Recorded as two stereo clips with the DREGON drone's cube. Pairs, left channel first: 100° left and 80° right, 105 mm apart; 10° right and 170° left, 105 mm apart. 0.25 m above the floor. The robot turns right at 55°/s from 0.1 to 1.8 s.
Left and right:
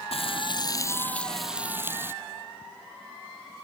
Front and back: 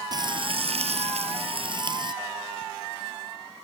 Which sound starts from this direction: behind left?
Frying, at 0.1 s.